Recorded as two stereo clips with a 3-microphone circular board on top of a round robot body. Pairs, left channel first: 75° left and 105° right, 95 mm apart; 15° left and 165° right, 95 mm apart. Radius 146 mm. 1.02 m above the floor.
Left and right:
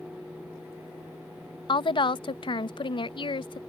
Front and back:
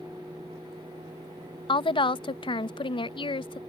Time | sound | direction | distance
1.7 | a woman speaking | 45° left | ?